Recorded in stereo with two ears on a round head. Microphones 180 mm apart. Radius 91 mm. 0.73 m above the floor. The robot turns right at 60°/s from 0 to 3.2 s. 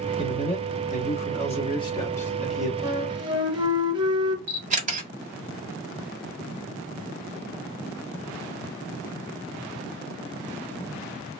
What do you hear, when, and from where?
0.2 s a man speaking: 35° left, 1.1 m; by 2.7 s 170° right, 1.1 m
2.8 s a flute: 20° right (ahead or behind), 0.8 m; by 4.4 s 25° right (ahead or behind), 0.8 m
4.5 s a camera shutter: 35° right (ahead or behind), 1.3 m